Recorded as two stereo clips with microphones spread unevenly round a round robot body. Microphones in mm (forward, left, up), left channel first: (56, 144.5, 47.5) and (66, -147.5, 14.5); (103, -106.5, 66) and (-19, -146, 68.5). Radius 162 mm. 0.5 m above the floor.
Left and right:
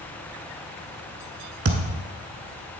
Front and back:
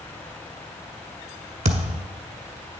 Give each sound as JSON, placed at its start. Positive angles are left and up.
{"t": 1.6, "sound": "a thud", "azimuth_deg": -150, "distance_m": 1.0}